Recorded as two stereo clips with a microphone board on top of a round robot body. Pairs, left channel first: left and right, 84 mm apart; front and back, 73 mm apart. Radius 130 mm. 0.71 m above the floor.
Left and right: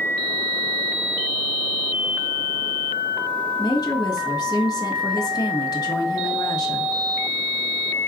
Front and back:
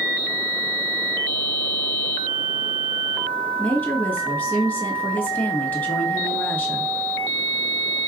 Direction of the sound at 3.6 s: 60° left.